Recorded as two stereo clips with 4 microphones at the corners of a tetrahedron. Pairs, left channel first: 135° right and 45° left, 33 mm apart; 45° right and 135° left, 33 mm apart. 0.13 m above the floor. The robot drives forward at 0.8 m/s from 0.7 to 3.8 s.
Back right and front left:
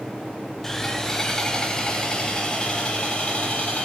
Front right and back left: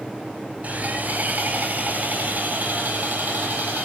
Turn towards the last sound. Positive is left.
turn(degrees=165)